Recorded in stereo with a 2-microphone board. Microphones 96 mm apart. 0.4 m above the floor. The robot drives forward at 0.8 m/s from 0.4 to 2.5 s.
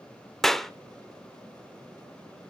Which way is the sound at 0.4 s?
5° left (ahead or behind).